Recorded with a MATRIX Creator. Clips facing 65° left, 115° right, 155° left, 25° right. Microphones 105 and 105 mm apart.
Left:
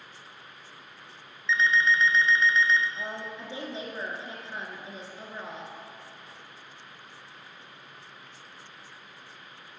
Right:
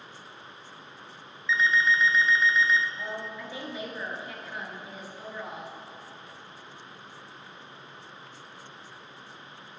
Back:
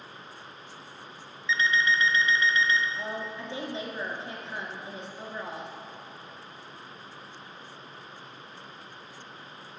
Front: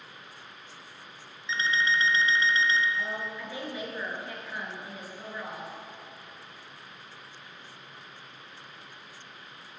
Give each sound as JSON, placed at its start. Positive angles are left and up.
{"t": 1.5, "sound": "an alarm clock", "azimuth_deg": -30, "distance_m": 0.8}
{"t": 3.0, "sound": "a woman speaking", "azimuth_deg": 110, "distance_m": 1.4}